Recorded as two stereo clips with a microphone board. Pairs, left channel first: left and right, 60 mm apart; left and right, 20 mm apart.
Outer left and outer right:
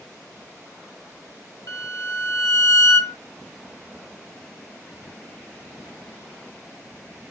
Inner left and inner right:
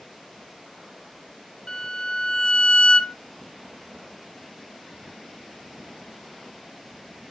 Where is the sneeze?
No sneeze in this recording.